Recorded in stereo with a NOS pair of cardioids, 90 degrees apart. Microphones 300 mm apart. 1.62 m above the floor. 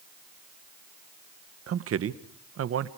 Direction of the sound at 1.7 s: 50° right.